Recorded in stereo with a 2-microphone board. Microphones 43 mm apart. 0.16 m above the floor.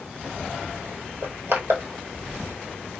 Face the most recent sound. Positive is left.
turn(degrees=-70)  # may be behind; listen again after turning